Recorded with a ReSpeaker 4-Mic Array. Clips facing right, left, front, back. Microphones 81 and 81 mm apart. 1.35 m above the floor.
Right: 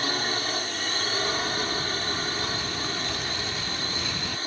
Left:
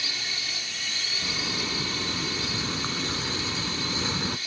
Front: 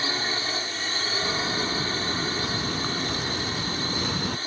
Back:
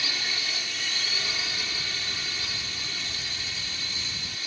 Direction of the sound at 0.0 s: 50° right.